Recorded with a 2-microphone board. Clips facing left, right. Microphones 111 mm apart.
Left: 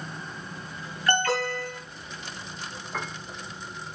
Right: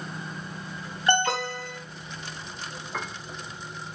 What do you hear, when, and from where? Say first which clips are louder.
1.1 s an alarm: right 1 dB; 20° right (ahead or behind), 3.5 m
2.9 s a piano: even; centre (ahead or behind), 1.1 m